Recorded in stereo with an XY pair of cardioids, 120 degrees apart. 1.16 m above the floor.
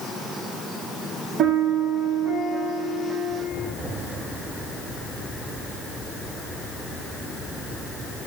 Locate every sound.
1.4 s a piano: 65° right, 1.9 m